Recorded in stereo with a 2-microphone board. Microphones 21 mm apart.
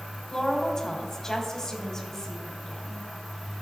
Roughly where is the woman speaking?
Left.